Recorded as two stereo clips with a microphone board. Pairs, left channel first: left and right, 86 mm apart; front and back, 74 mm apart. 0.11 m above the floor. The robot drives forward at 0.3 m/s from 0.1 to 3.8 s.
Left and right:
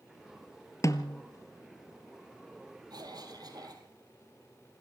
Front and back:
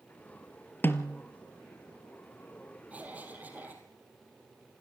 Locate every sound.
0.8 s a snare drum: 55° left, 1.2 m; by 1.2 s 60° left, 1.1 m
2.9 s a cough: 115° right, 3.5 m